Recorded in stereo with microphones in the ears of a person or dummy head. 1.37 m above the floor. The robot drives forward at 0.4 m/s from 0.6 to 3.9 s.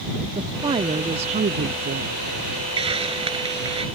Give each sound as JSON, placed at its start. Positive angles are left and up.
{"t": 0.3, "sound": "a woman speaking", "side_deg": -25}
{"t": 2.8, "sound": "a hiss", "side_deg": -30}